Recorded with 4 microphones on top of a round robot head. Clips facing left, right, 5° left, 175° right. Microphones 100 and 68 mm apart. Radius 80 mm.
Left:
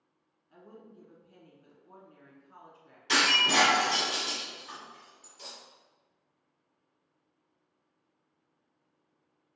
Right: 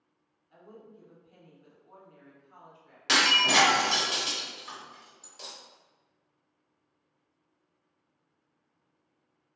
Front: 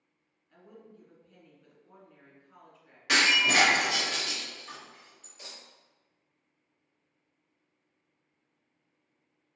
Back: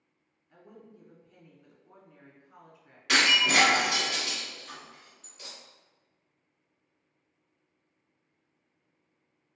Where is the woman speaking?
110° left, 1.3 m.